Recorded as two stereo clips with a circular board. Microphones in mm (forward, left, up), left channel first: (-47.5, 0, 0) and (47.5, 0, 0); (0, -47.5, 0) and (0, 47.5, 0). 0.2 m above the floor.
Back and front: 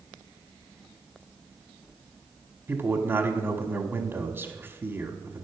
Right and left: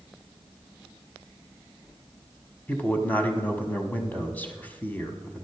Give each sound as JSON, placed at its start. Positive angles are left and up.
{"t": 2.7, "sound": "a man speaking", "azimuth_deg": -40, "distance_m": 1.1}